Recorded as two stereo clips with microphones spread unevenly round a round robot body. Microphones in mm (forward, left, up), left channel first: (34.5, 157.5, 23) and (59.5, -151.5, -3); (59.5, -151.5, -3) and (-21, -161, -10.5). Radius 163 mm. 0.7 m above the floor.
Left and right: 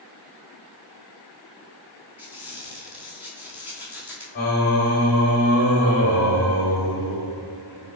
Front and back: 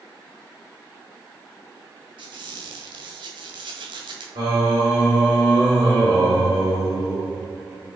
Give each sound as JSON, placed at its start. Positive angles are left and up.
{"t": 2.2, "sound": "a squeak", "azimuth_deg": -170, "distance_m": 1.7}
{"t": 4.3, "sound": "singing", "azimuth_deg": 160, "distance_m": 2.5}